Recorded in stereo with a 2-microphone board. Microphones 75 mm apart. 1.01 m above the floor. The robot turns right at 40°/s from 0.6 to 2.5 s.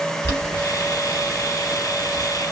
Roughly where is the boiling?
Left.